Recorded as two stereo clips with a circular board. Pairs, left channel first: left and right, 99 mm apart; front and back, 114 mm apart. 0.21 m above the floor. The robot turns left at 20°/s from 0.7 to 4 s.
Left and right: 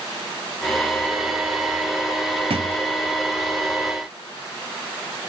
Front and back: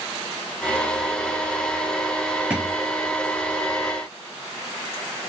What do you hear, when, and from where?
2.5 s a thud: 95° right, 1.2 m; by 2.8 s 100° right, 1.2 m